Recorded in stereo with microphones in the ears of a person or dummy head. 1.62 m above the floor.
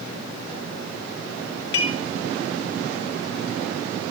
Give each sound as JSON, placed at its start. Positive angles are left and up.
{"t": 1.7, "sound": "dishes clattering", "side_deg": 70, "distance_m": 4.0}